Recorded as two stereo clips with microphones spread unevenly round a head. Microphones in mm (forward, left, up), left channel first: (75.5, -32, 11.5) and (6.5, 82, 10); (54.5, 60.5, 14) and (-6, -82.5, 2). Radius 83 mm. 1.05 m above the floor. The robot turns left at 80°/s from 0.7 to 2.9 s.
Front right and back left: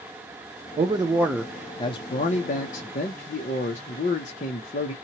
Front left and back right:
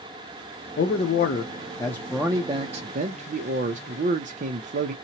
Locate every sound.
0.8 s a man speaking: 80° left, 0.5 m; by 4.9 s 90° right, 0.5 m